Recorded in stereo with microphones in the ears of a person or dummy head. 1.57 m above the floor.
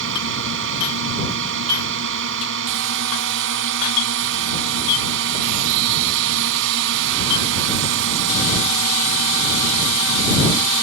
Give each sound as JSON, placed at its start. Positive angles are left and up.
{"t": 0.0, "sound": "a drone", "side_deg": -70}